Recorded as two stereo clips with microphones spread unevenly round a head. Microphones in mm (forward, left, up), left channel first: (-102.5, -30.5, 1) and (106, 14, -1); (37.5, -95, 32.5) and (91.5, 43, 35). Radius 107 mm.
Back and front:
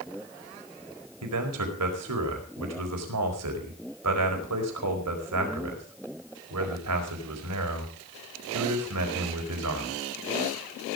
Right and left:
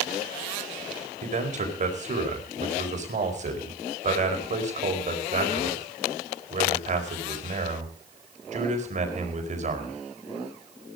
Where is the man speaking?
30° left, 4.5 m.